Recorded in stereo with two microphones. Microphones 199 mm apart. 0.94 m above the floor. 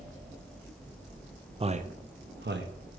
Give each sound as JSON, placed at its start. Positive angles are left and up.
{"t": 1.6, "sound": "a man speaking", "side_deg": -30, "distance_m": 0.6}